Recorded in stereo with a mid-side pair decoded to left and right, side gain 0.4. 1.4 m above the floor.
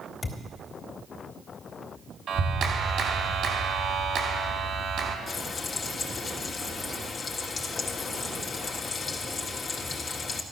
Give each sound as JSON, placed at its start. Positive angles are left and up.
{"t": 0.2, "sound": "a thud", "azimuth_deg": 45, "distance_m": 2.5}
{"t": 2.3, "sound": "a clap", "azimuth_deg": -60, "distance_m": 3.0}
{"t": 5.3, "sound": "frying", "azimuth_deg": 55, "distance_m": 2.0}